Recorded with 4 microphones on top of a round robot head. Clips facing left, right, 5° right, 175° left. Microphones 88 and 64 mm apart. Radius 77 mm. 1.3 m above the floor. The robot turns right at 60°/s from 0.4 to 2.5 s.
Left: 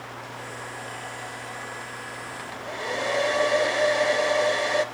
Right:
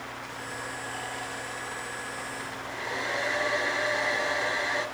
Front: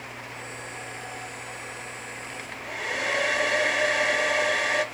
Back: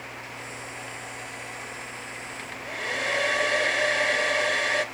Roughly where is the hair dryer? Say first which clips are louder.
Left 3 dB, even; left.